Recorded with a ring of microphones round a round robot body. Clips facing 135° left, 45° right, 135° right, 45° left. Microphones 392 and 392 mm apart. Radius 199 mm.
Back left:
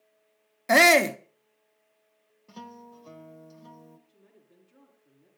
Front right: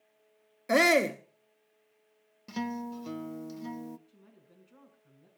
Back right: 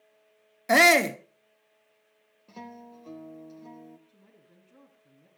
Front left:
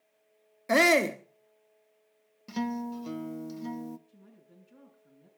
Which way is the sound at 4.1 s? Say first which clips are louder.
Even, front left 3 dB; 40° right.